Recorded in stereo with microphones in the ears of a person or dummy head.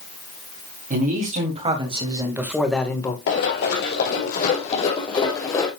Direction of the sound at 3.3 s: 65° left (ahead or behind).